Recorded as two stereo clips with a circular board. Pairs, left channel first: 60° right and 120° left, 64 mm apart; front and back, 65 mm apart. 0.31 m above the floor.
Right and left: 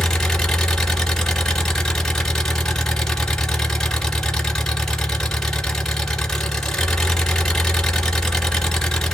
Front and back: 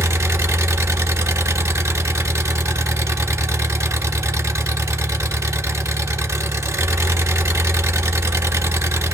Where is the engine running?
145° right, 1.4 m.